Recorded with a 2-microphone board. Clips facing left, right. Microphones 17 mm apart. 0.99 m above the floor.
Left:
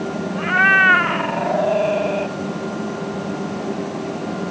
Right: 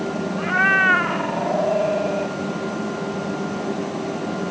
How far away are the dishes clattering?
I don't hear dishes clattering.